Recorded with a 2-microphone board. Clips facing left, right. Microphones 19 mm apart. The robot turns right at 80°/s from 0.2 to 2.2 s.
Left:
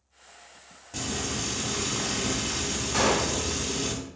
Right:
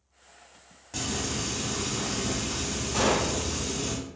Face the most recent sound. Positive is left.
turn(degrees=25)  # may be behind; listen again after turning